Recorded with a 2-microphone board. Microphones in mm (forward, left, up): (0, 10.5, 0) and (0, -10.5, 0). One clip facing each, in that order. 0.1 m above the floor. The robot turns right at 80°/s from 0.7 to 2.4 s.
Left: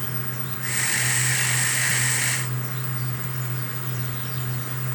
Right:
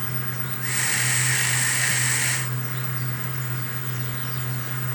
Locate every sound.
Only background noise.